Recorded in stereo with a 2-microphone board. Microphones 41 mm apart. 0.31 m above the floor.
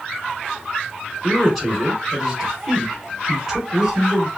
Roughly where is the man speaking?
Centre.